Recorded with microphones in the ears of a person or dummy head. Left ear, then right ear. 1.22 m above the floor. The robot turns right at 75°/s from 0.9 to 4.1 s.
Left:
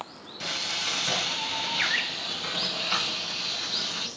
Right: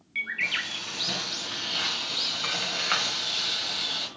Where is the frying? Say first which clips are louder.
Left 3 dB; 100° left, 1.8 m; by 4.1 s 20° right, 1.8 m.